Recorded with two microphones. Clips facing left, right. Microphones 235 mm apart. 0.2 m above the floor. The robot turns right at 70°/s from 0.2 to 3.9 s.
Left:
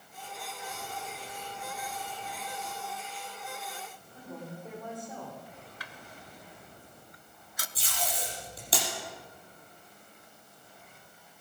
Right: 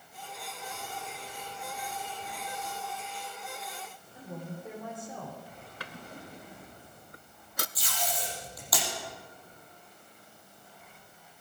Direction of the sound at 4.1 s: 5° right (ahead or behind).